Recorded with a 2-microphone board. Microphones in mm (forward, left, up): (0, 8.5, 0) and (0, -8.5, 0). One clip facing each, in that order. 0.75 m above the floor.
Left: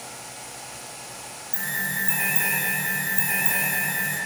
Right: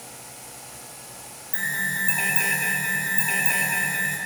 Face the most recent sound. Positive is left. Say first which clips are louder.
# right 2 dB
turn(degrees=-35)  # may be behind; listen again after turning